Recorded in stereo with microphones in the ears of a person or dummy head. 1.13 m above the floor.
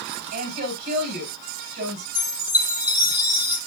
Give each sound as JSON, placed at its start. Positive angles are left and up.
{"t": 0.3, "sound": "a woman speaking", "side_deg": -55, "distance_m": 5.0}
{"t": 2.1, "sound": "a chime", "side_deg": -10, "distance_m": 1.2}